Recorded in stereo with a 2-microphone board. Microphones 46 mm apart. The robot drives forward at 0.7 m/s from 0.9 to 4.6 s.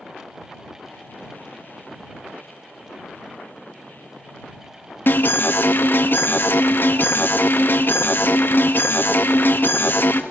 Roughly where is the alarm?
Left.